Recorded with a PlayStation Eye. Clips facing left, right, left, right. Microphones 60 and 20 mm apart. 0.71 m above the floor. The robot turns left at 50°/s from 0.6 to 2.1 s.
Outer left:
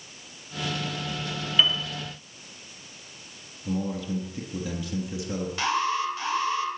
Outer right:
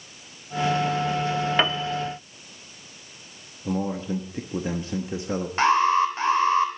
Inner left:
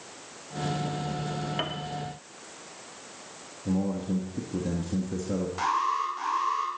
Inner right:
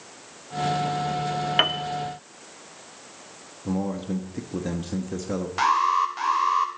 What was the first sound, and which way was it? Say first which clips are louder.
A piano: outer left 2 dB, inner right 14 dB; 50° right (ahead or behind).